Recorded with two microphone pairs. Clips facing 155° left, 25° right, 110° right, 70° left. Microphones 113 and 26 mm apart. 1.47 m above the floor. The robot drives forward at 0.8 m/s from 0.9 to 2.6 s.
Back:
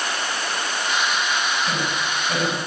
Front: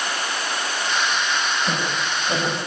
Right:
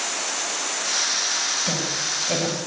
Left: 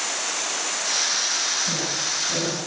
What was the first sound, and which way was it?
A woman speaking, 90° right.